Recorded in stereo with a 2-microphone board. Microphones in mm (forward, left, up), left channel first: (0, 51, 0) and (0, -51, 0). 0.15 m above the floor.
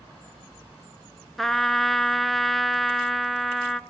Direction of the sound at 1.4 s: Centre (ahead or behind).